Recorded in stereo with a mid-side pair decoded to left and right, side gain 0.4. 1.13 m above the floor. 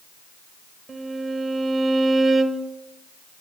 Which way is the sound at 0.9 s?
45° right.